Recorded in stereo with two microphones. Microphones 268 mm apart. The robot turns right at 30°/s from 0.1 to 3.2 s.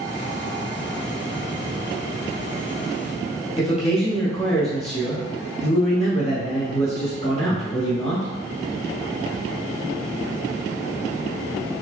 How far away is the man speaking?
About 2 m.